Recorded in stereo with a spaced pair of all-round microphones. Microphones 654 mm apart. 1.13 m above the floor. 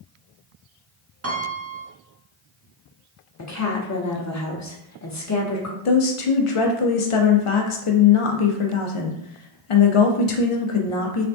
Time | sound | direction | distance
1.2 | a piano | 25° right (ahead or behind) | 0.6 m
3.4 | a woman speaking | 25° left (ahead or behind) | 0.6 m
5.8 | a woman speaking | 55° left (ahead or behind) | 0.6 m